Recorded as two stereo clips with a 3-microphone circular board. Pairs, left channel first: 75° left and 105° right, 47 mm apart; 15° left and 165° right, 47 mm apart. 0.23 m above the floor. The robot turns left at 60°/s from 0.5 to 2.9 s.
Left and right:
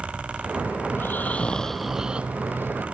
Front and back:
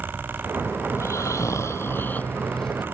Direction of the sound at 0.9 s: 40° left.